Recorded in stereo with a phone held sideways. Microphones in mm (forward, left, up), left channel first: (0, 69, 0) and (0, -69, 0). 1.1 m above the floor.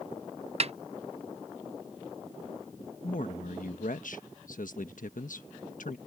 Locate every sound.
0.6 s a snare drum: 50° right (ahead or behind)
3.0 s a man speaking: 75° left (ahead or behind)